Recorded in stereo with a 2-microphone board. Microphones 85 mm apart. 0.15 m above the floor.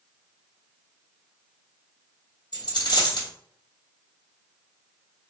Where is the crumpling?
I don't hear crumpling.